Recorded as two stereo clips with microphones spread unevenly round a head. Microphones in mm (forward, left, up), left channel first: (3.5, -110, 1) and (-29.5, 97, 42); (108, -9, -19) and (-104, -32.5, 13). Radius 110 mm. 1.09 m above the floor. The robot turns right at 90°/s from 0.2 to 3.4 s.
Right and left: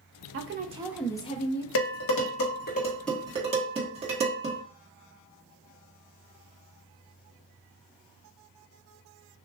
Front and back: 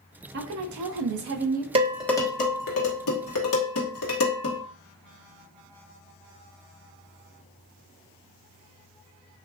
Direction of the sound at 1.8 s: 110° right.